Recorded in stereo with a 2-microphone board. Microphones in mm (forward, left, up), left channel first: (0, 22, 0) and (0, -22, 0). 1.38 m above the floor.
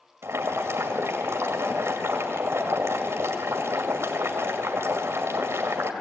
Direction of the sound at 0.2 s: 80° right.